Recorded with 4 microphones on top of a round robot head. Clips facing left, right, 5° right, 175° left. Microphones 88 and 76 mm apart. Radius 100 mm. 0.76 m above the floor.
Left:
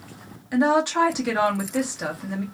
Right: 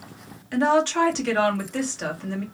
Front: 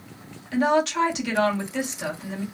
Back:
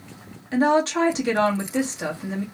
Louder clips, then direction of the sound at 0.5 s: Even, back 2 dB; 155° left.